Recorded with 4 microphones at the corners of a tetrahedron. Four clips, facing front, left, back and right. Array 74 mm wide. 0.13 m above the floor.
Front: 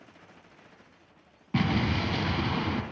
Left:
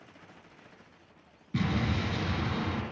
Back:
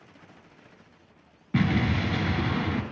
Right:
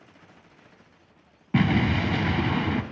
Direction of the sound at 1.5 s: 85° right.